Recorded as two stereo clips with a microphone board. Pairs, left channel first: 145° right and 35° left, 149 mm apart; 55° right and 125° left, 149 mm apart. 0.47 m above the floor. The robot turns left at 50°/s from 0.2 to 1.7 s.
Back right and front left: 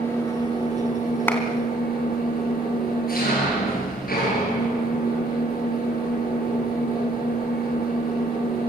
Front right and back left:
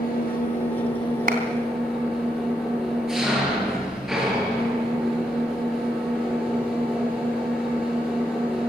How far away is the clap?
About 3.5 m.